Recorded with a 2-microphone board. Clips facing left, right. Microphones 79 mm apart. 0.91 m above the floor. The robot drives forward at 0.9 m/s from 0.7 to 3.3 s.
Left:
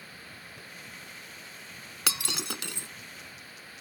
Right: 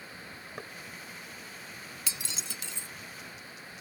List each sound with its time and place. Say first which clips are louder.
0.6 s knocking: right 6 dB; 65° right (ahead or behind)
2.1 s breaking glass: left 11 dB; 75° left (ahead or behind); by 2.9 s 60° left (ahead or behind)